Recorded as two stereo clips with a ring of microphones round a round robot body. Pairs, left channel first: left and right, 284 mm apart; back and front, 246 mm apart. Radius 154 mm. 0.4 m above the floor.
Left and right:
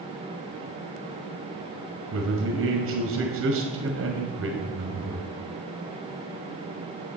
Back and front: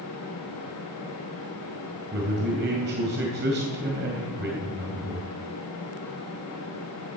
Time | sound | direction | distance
2.1 | a man speaking | 50° right | 2.5 m